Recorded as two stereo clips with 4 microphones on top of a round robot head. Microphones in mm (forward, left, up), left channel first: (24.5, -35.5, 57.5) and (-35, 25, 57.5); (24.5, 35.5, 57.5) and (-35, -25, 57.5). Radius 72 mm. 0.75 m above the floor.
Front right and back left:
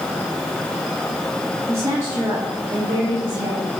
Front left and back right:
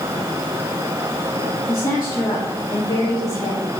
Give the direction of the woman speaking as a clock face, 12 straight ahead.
9 o'clock.